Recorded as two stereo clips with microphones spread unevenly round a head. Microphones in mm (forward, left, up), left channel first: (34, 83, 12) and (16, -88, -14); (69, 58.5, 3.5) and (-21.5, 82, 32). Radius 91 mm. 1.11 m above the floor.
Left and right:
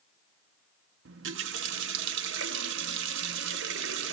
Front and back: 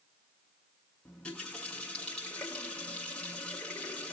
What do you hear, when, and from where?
1.1 s a running tap: 110° right, 0.5 m